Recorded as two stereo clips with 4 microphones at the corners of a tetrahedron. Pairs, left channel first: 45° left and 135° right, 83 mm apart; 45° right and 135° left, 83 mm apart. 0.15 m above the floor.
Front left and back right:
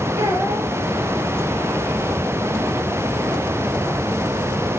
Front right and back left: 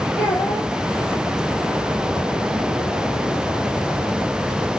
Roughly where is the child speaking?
Right.